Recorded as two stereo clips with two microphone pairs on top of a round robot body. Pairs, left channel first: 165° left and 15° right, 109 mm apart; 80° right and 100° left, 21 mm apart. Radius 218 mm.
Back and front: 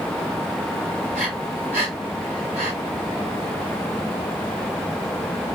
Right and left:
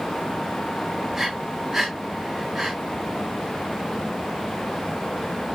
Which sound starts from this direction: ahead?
Breathing, at 1.1 s.